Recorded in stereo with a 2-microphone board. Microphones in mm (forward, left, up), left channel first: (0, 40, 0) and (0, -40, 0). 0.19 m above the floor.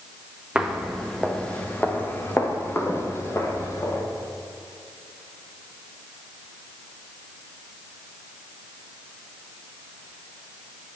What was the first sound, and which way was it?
Footsteps, 10° right (ahead or behind).